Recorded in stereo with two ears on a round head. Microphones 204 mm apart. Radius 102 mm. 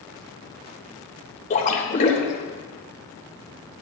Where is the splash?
35° left (ahead or behind), 3 m.